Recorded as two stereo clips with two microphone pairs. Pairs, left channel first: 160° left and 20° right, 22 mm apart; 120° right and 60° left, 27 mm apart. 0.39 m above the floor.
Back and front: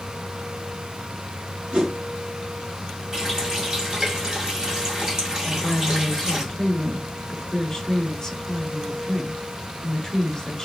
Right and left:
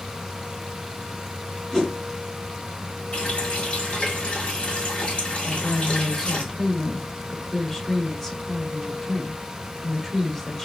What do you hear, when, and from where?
1.7 s a whoosh: 35° right, 2.5 m
3.1 s a running tap: 75° right, 1.6 m
5.4 s a woman speaking: 165° right, 1.1 m